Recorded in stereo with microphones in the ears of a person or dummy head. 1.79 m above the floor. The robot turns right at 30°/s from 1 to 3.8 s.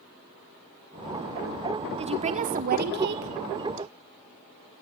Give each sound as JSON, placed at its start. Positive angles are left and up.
{"t": 2.0, "sound": "a woman speaking", "azimuth_deg": -145, "distance_m": 1.7}